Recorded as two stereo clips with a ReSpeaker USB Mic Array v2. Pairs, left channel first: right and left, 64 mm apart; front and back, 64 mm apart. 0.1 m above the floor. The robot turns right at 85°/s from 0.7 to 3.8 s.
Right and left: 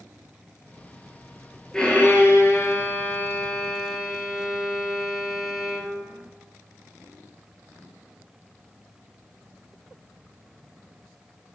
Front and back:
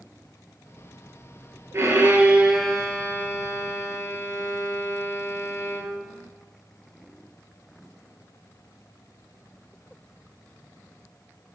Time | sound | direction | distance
1.7 | a violin | 165° right | 0.6 m